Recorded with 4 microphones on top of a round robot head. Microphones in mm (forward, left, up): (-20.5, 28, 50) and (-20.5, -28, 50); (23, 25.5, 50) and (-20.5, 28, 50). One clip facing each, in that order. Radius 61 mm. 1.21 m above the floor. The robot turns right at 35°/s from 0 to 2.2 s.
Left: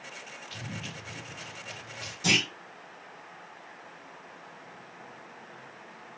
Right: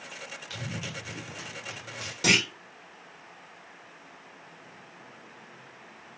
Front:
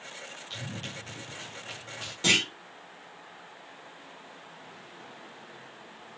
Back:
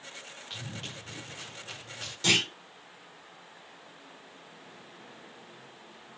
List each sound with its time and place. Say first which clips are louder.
0.5 s running footsteps: right 3 dB, front 1 dB; 110° right, 4 m; by 2.1 s 70° right, 3.5 m
2.2 s a clunk: right 2 dB, front 1 dB; 65° right, 4 m